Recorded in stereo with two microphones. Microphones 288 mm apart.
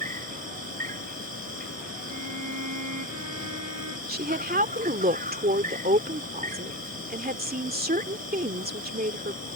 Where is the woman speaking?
30° right (ahead or behind).